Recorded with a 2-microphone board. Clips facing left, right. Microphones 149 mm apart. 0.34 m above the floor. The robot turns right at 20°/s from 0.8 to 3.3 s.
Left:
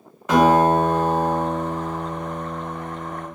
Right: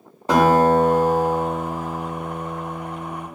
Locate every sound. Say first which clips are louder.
0.3 s a guitar: even; 95° right, 0.7 m; by 3.3 s 45° right, 0.7 m